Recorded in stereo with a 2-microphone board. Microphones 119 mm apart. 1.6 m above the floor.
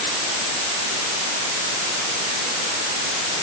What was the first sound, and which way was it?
Only background noise.